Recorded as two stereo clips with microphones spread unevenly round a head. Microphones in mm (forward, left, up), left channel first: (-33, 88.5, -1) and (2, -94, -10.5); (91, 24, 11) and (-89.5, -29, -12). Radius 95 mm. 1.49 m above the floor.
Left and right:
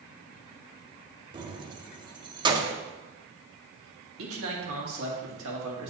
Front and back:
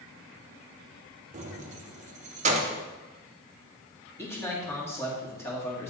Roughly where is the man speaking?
Ahead right.